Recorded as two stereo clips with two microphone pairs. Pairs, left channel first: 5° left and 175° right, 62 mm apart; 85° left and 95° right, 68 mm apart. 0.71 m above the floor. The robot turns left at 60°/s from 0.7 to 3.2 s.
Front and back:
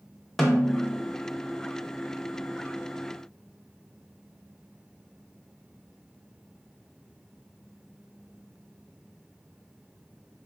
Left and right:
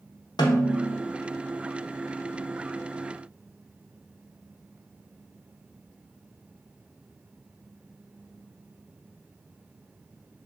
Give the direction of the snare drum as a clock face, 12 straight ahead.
9 o'clock.